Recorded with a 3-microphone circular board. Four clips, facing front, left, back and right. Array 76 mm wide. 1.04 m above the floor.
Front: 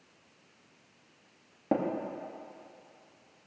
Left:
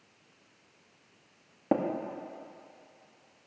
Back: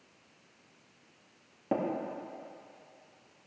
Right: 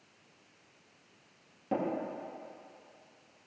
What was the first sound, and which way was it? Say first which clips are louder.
Tapping: left 5 dB, front 2 dB; 75° left.